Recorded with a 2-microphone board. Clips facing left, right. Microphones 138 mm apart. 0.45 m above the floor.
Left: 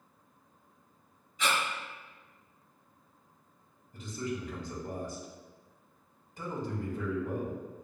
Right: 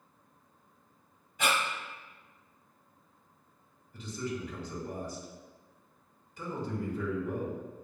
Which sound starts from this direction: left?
A man speaking, at 3.9 s.